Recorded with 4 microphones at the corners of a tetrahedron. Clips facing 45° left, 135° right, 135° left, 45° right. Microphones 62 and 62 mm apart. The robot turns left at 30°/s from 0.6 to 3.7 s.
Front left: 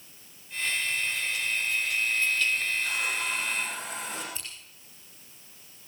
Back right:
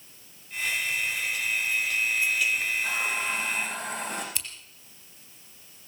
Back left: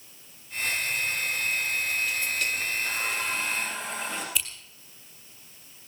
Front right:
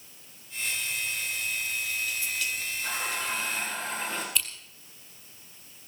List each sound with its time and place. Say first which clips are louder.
2.8 s a running tap: back right 2 dB, back left 2 dB; 70° right, 9 m; by 4.2 s 100° right, 9 m
4.3 s scissors: back right 3 dB, even; 135° right, 4 m